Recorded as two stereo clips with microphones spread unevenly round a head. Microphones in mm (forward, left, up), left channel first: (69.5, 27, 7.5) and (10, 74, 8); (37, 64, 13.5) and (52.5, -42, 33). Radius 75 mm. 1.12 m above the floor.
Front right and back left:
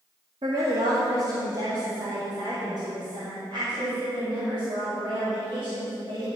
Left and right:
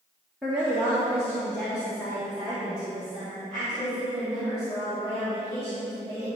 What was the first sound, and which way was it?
A woman speaking, 175° right.